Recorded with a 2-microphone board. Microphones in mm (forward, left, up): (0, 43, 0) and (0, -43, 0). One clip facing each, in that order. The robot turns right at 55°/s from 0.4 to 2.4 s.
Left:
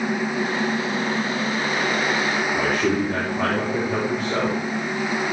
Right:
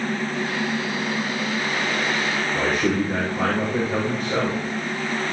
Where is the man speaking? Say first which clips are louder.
Right 1 dB; 15° right (ahead or behind), 6 m.